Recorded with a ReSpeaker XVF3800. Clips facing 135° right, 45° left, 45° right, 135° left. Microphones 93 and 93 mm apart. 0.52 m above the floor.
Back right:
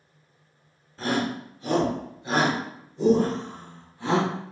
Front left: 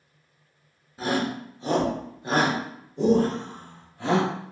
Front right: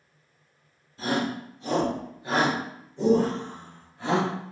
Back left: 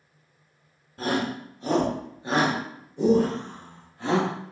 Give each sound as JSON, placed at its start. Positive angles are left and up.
{"t": 1.0, "sound": "a shout", "azimuth_deg": 125, "distance_m": 1.0}